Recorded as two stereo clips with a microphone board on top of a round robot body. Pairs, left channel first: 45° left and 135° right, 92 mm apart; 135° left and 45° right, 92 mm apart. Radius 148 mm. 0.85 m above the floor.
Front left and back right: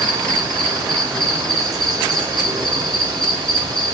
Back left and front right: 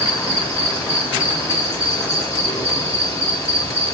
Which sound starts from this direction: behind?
An insect, at 0.0 s.